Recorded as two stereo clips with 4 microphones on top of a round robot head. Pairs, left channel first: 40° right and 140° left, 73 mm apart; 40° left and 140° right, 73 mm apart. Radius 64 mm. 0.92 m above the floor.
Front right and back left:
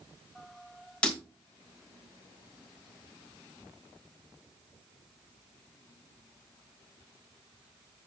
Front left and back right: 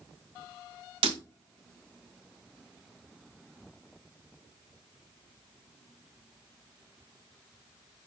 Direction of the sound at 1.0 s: 120° right.